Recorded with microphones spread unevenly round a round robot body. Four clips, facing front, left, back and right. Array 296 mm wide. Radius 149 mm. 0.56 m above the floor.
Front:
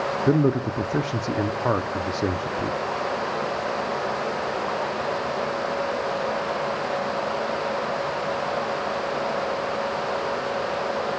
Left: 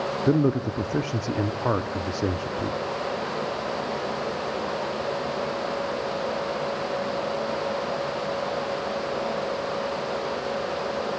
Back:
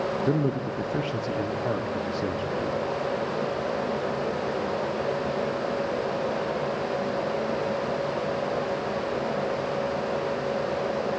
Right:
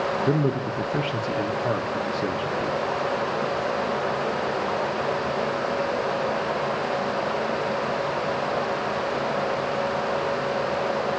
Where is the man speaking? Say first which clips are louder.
Left 6 dB, front 8 dB; 25° left, 0.7 m.